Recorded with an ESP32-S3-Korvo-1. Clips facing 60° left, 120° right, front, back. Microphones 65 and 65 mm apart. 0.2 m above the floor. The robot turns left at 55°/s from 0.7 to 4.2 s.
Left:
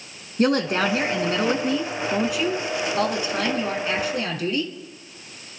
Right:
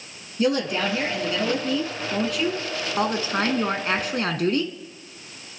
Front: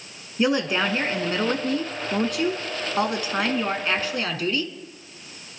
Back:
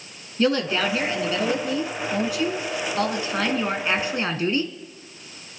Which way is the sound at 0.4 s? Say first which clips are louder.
Left 2 dB, even; 70° left.